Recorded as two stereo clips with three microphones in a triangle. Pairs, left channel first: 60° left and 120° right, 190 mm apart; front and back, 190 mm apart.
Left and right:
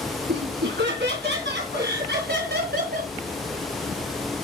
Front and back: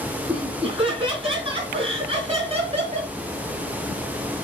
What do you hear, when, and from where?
0.3 s laughter: 120° right, 3.5 m; by 3.1 s 135° right, 1.9 m